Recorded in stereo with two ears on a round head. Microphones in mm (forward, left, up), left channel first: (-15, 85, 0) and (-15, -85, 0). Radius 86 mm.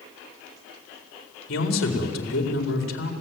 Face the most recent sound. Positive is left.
turn(degrees=85)